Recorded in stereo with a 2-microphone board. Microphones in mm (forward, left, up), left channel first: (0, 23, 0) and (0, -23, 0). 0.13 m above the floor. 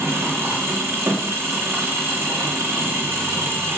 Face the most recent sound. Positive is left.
turn(degrees=-70)  # may be behind; listen again after turning